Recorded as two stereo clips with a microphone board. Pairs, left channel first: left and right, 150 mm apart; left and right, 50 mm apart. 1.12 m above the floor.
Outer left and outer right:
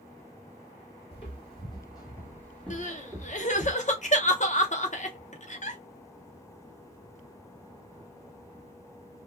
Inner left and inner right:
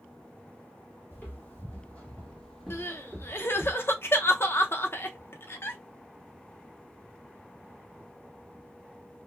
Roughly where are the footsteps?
Left.